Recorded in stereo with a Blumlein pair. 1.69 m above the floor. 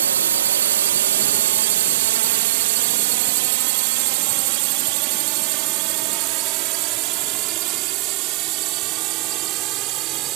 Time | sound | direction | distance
0.0 | a drone | 65° right | ?